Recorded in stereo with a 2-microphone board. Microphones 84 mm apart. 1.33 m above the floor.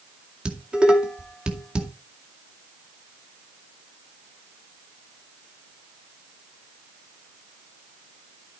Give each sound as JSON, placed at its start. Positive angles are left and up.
{"t": 0.5, "sound": "dishes clattering", "side_deg": -10, "distance_m": 2.0}